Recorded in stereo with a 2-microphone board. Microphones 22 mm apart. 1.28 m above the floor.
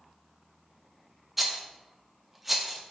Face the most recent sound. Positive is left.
turn(degrees=-5)  # may be behind; listen again after turning